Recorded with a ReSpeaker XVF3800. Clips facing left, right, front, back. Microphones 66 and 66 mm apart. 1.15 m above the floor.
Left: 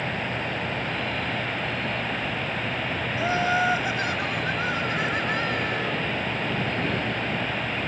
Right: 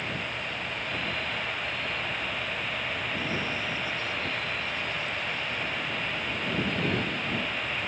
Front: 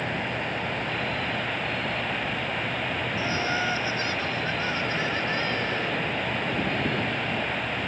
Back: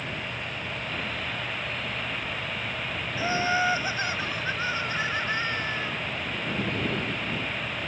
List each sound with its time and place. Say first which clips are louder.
0.0 s an insect: left 5 dB, front 5 dB; 40° left
3.2 s laughter: left 9 dB, back 4 dB; 110° left